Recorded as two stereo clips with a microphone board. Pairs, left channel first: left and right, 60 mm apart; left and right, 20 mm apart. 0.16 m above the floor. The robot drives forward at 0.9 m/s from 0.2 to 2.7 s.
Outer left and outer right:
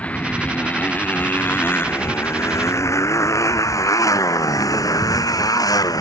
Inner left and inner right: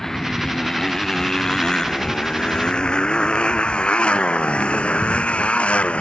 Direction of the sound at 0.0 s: 20° left (ahead or behind).